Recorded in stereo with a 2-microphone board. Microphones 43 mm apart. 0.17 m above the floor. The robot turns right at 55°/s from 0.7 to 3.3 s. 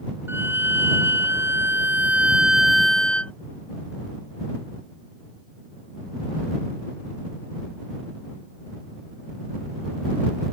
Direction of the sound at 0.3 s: 115° right.